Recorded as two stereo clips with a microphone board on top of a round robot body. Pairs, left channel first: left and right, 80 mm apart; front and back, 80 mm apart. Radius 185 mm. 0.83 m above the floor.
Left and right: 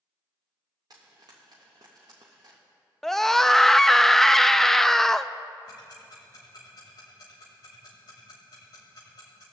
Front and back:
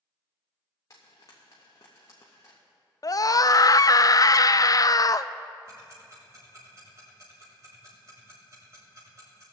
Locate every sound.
0.9 s frying: 50° right, 0.6 m
3.0 s a scream: 5° left, 0.5 m
5.7 s ticking: 125° left, 0.8 m